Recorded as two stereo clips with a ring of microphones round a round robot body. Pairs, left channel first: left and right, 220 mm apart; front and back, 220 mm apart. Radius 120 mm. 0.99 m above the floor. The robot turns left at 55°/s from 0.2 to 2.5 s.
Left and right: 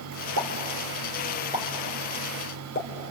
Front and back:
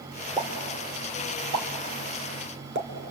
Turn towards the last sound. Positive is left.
turn(degrees=145)